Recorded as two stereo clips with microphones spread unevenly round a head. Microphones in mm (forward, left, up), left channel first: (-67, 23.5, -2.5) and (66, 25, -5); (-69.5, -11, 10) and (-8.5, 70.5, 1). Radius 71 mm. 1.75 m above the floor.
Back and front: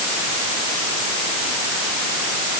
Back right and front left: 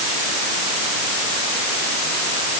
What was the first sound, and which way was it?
Only background noise.